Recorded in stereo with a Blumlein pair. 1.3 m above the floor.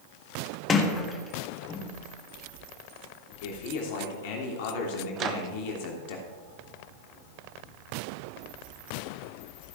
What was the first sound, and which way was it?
A sliding door, 20° left.